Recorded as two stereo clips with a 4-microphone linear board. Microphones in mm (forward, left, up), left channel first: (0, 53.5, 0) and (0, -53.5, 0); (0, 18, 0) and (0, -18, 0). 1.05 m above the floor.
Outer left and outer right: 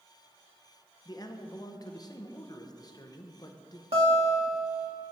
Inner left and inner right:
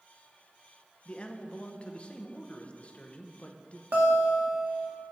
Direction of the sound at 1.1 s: 40° left (ahead or behind).